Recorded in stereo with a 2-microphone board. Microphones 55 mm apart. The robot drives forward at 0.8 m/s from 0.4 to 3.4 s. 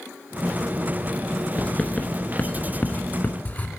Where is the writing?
20° left (ahead or behind), 1.6 m; by 3.7 s 35° left (ahead or behind), 1.0 m.